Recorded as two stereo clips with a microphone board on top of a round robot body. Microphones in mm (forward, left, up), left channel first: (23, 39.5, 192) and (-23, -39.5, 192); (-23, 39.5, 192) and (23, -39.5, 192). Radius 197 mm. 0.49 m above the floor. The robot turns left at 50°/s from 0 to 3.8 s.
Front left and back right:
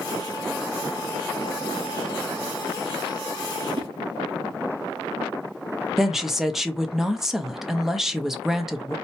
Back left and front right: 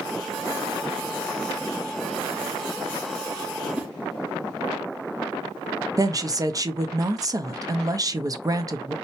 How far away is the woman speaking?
About 0.9 m.